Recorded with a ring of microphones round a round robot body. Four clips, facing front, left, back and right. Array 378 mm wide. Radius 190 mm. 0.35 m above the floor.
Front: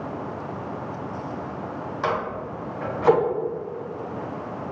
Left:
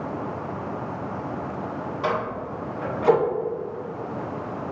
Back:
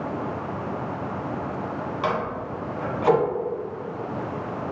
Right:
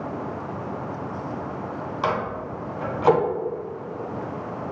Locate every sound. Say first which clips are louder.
2.0 s a microwave: right 1 dB, front 1 dB; 80° right, 1.9 m